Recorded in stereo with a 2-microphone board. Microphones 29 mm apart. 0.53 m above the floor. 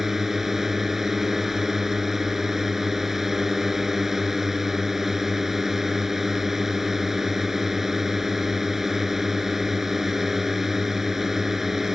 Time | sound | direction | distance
0.0 | a drone | 10° right (ahead or behind) | ?